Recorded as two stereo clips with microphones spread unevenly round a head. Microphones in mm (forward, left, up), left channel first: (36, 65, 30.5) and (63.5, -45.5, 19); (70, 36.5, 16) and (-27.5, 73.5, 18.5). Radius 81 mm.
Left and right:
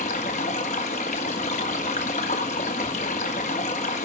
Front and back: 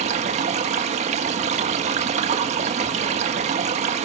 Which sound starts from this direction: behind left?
Running water, at 0.0 s.